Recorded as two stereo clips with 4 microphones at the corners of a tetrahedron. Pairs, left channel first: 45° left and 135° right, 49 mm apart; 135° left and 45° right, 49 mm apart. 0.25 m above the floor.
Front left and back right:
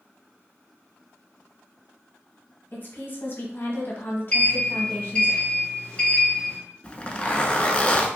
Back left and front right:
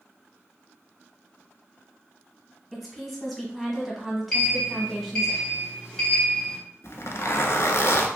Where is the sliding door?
80° left, 1.3 m.